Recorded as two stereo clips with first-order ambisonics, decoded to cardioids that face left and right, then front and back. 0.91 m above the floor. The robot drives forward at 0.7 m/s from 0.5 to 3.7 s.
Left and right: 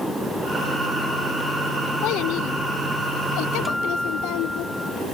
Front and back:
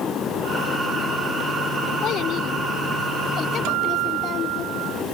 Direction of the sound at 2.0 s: 55° left.